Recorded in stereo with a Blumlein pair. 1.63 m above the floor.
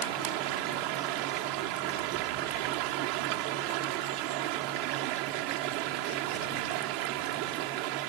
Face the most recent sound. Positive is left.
turn(degrees=-45)